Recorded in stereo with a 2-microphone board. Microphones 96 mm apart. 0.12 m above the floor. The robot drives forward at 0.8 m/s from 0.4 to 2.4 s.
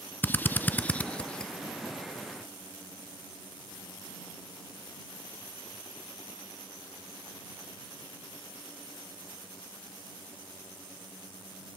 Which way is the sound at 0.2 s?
20° left (ahead or behind).